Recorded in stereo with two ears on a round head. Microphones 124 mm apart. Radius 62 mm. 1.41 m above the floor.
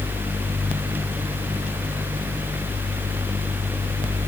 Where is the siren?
I don't hear a siren.